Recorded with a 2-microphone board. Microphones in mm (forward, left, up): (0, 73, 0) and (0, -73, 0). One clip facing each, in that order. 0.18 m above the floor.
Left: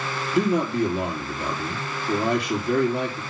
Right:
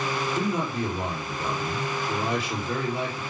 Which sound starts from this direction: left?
A man speaking, at 0.3 s.